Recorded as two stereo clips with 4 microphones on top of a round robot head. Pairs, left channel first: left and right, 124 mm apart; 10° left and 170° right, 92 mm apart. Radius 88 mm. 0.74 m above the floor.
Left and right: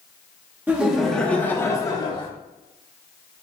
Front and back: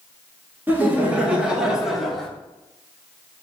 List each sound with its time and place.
0.7 s laughter: 140° right, 1.1 m; by 2.3 s 95° left, 1.3 m